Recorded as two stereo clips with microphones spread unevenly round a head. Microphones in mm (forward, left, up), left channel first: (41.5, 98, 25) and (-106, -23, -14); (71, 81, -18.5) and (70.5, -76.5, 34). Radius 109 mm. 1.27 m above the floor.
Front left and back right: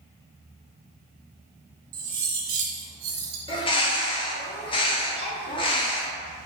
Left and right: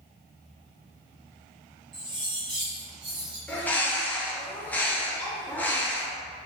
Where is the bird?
100° left, 0.5 m.